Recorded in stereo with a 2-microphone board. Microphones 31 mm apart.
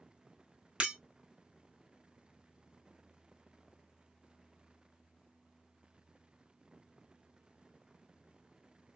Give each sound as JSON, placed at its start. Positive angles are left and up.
{"t": 0.8, "sound": "breaking glass", "side_deg": -40, "distance_m": 1.8}